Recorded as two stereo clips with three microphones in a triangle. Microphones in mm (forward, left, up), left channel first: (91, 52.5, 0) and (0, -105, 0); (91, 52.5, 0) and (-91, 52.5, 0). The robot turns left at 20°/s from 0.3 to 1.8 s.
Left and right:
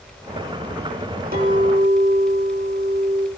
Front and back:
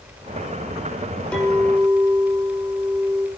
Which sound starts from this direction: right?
A clink, at 1.3 s.